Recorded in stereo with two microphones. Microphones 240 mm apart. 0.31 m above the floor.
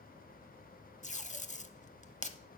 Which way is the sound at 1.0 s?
30° left (ahead or behind).